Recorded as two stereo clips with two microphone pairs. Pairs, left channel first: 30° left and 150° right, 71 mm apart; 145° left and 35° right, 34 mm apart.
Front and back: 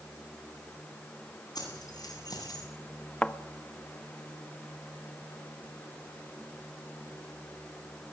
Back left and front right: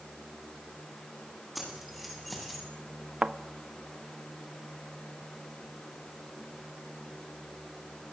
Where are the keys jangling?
50° left, 9 m.